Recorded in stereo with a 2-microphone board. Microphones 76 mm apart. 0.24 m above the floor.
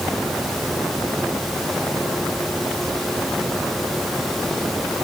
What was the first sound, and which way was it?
Only background noise.